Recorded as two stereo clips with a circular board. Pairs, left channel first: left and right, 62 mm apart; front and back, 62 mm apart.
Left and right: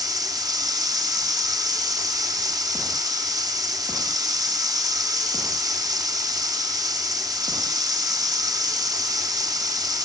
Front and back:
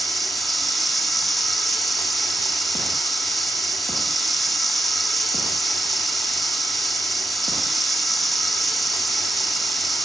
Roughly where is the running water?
Right.